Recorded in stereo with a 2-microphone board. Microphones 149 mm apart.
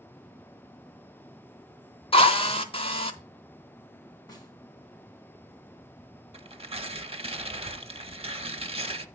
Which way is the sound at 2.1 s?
40° left (ahead or behind).